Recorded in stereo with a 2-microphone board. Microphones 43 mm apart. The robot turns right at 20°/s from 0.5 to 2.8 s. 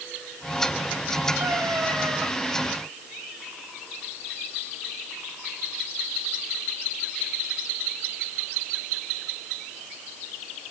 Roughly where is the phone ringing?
No phone ringing in this recording.